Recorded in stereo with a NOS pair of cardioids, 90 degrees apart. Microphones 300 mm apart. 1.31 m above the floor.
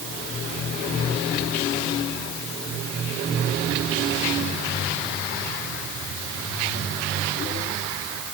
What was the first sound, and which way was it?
Only background noise.